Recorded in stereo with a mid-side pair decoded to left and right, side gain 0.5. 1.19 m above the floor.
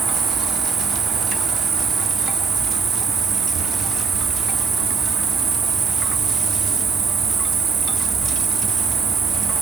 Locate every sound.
0.0 s an insect: 60° right, 3.5 m